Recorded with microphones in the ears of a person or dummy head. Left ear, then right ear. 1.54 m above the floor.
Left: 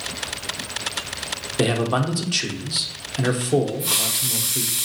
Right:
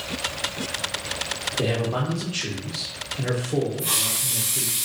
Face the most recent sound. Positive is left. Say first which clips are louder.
# left 2 dB
turn(degrees=-15)  # may be behind; listen again after turning